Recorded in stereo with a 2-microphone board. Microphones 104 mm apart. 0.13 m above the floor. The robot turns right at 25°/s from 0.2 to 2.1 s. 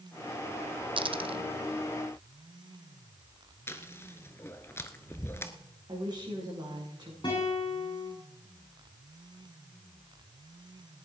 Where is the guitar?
45° left (ahead or behind), 9 m.